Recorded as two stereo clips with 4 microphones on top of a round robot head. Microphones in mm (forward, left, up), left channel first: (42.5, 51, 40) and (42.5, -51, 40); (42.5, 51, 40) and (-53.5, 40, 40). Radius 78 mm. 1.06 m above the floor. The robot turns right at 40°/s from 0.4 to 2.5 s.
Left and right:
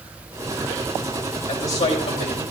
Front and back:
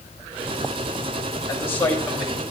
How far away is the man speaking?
About 4.5 m.